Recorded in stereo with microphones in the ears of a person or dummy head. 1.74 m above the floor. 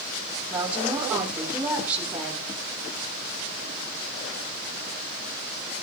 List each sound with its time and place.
0.5 s a woman speaking: 5° right (ahead or behind), 3 m